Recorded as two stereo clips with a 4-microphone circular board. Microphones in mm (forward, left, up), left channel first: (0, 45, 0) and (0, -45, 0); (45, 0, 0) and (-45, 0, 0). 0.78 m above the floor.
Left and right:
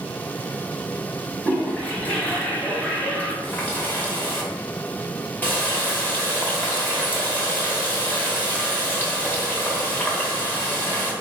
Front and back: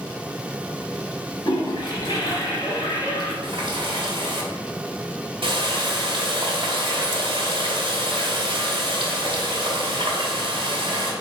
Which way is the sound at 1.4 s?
20° left.